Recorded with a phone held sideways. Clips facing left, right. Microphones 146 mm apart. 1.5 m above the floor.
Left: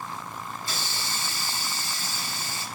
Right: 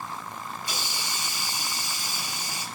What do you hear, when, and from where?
0.6 s a hiss: 15° right (ahead or behind), 2 m